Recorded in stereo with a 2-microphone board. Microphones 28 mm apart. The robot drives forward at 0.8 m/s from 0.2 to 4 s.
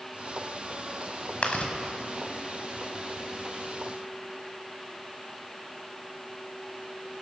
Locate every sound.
1.4 s chewing: 55° left (ahead or behind), 1.6 m; by 1.7 s 65° left (ahead or behind), 1.4 m